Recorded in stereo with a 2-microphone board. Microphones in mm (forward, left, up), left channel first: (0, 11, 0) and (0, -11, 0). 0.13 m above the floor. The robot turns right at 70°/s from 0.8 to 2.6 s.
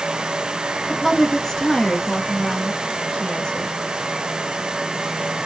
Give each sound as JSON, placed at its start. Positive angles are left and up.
{"t": 0.9, "sound": "a woman speaking", "azimuth_deg": -5, "distance_m": 1.4}